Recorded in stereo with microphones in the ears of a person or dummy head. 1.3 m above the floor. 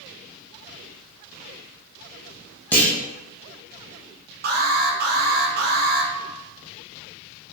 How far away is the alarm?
About 0.7 m.